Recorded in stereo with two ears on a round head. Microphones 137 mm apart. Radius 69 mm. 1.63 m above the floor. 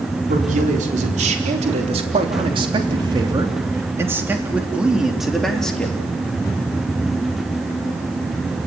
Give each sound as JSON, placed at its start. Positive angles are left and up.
{"t": 0.3, "sound": "a man speaking", "side_deg": -60, "distance_m": 4.5}